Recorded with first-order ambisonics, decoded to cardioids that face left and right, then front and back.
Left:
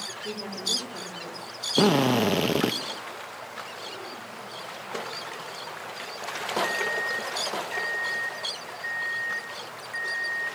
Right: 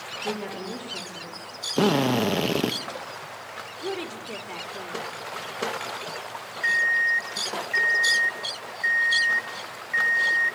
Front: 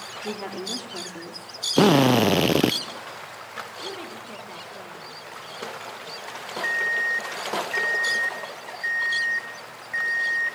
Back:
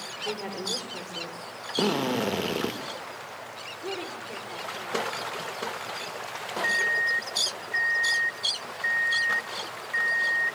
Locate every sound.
0.2 s a woman speaking: 20° right, 4 m; by 1.5 s 10° left, 4 m
1.8 s a drill: 5° left, 0.7 m
3.8 s a woman speaking: 75° right, 4 m
6.6 s an alarm clock: 50° right, 1.5 m